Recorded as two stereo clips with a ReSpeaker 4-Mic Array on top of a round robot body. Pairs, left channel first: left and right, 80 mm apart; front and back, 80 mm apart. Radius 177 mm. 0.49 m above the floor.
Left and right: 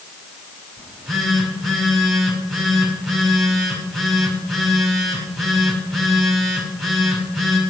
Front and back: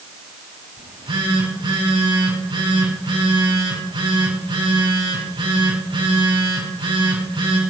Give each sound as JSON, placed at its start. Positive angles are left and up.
{"t": 0.8, "sound": "a phone buzzing", "azimuth_deg": 180, "distance_m": 5.5}